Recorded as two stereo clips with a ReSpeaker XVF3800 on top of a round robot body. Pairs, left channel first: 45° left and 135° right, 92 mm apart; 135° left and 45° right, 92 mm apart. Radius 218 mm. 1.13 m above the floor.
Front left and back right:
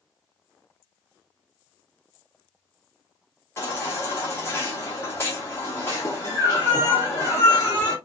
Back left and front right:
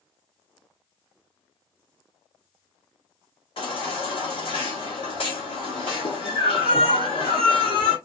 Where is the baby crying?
110° left, 1.0 m.